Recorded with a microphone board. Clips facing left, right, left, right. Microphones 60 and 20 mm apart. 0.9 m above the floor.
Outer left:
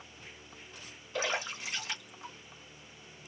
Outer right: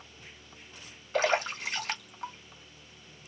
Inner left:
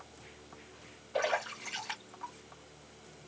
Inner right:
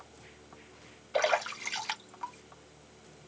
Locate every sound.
1.1 s a splash: 70° right (ahead or behind), 2 m